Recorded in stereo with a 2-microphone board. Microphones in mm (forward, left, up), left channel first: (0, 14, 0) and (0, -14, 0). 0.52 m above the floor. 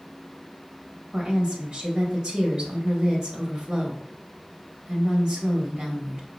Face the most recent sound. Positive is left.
turn(degrees=-25)  # may be behind; listen again after turning